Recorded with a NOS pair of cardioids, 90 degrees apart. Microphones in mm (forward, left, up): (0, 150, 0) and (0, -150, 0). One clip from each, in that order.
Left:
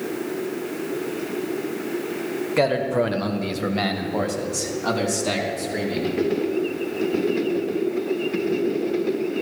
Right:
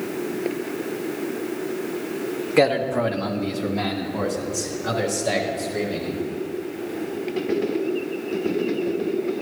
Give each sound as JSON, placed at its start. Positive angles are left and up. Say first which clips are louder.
{"t": 2.6, "sound": "a man speaking", "louder": "right 2 dB", "azimuth_deg": -10, "distance_m": 1.2}